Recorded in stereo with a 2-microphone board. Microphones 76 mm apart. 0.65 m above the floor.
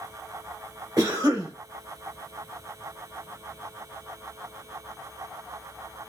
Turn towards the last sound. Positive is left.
turn(degrees=-55)  # may be behind; listen again after turning